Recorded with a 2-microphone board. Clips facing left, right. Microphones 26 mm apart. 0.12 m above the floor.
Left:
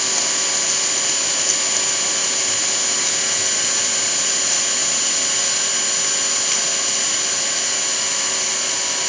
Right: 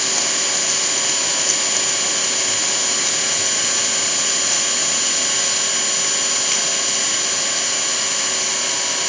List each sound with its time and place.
0.0 s an engine running: 5° right (ahead or behind), 0.9 m